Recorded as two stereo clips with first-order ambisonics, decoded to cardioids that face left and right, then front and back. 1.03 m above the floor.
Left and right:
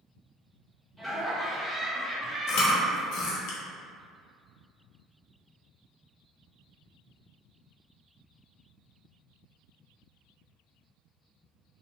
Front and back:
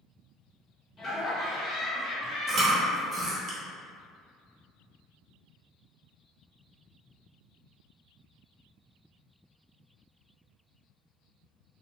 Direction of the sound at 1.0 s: 15° right.